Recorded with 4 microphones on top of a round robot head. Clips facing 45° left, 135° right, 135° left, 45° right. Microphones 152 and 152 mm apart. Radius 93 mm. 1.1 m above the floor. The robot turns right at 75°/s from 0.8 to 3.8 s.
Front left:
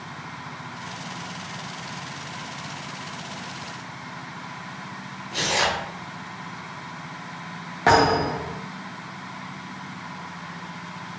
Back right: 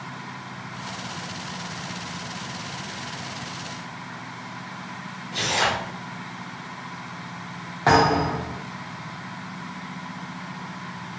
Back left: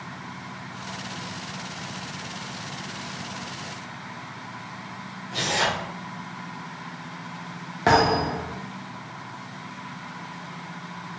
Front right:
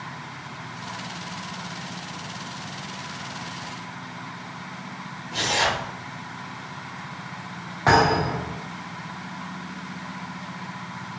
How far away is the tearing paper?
About 1.2 m.